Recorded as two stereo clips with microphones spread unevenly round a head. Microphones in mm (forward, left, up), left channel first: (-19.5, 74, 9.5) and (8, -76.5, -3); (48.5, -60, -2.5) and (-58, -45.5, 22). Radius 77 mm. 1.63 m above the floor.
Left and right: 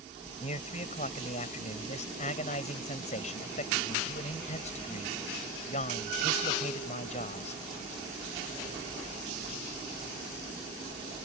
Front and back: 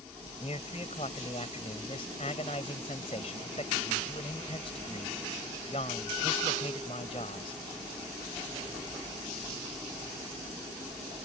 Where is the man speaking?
50° left.